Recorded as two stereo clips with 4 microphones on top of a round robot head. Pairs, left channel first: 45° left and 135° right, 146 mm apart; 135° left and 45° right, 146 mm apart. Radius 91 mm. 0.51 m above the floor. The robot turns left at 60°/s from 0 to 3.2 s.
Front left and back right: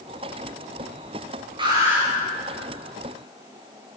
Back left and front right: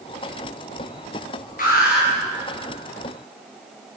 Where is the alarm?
170° left, 9 m; by 2.1 s 140° left, 9 m.